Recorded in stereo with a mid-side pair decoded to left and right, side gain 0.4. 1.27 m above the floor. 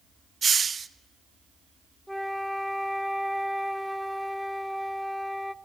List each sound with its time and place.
0.4 s a hiss: 40° right, 1.1 m
2.1 s a flute: 10° left, 0.9 m